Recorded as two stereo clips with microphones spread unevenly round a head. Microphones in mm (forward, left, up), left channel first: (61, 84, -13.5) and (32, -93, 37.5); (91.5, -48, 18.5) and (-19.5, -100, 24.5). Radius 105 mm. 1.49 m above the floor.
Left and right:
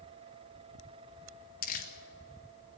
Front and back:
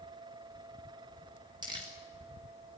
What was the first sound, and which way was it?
Crumpling, 135° left.